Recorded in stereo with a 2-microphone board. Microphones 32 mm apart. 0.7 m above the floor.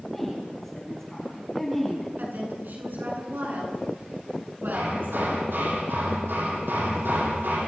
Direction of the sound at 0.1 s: 10° left (ahead or behind).